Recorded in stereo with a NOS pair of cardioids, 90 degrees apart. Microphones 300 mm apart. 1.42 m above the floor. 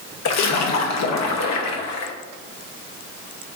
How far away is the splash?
About 0.8 m.